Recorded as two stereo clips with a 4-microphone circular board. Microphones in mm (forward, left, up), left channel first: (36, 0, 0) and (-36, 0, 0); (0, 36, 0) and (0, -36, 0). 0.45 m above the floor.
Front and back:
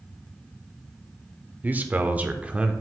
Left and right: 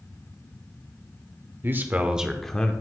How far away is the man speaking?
About 1.0 m.